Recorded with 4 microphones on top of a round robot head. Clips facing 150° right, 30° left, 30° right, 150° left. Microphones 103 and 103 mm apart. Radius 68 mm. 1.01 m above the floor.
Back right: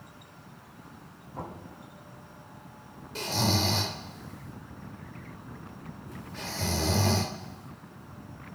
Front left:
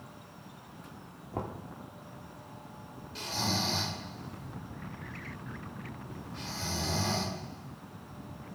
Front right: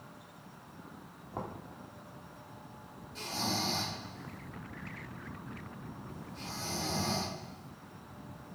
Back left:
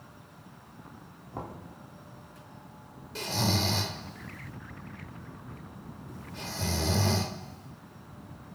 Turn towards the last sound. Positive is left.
turn(degrees=170)